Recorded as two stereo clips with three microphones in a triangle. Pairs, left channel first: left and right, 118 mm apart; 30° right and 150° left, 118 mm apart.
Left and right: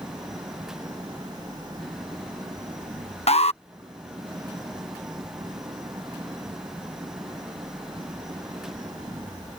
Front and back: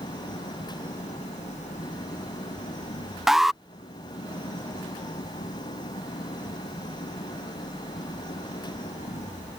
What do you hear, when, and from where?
0.0 s an engine running: 35° right
3.3 s an alarm: 65° left